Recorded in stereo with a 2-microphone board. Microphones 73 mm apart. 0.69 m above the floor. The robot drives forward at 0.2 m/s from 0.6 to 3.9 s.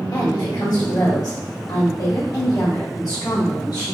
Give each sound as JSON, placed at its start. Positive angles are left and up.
{"t": 0.1, "sound": "a woman speaking", "side_deg": 55, "distance_m": 1.6}